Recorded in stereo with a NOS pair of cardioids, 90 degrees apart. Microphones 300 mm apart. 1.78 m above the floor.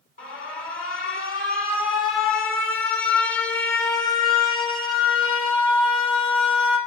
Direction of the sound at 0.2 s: 40° left.